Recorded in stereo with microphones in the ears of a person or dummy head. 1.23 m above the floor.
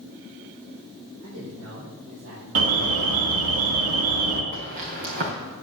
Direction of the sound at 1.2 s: 60° right (ahead or behind).